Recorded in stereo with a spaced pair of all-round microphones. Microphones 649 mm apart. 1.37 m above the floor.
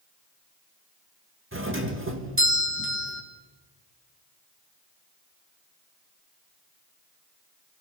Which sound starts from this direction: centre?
A doorbell, at 1.5 s.